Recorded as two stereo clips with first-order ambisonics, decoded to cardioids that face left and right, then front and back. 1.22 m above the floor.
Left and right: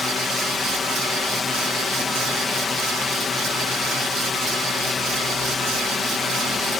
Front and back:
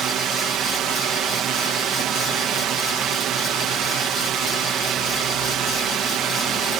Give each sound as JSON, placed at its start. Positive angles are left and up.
{"t": 0.0, "sound": "a drone", "azimuth_deg": 150}